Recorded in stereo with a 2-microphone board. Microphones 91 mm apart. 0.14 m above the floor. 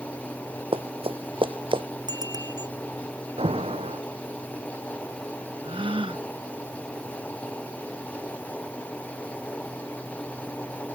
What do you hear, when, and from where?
0.7 s running footsteps: 70° right (ahead or behind); by 1.8 s 60° right (ahead or behind)
2.1 s a bicycle bell: 45° right (ahead or behind)
3.4 s an alarm: 80° right
5.6 s a gasp: 65° right (ahead or behind)